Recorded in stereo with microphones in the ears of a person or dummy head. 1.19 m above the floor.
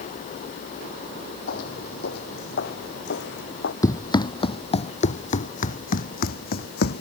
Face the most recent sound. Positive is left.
turn(degrees=55)  # may be behind; listen again after turning